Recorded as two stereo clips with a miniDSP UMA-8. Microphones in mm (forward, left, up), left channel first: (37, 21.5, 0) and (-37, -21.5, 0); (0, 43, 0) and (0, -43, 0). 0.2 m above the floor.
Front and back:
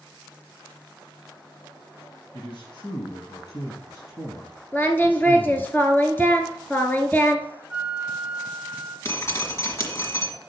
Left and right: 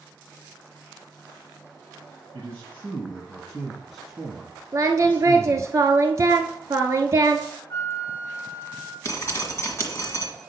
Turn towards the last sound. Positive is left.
turn(degrees=60)